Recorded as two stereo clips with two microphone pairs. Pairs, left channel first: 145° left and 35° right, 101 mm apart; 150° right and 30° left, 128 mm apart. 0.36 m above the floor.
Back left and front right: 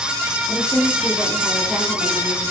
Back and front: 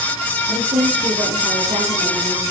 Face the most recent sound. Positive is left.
turn(degrees=50)